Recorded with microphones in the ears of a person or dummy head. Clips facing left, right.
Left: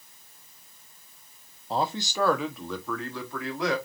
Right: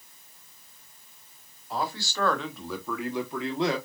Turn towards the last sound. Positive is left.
turn(degrees=-25)  # may be behind; listen again after turning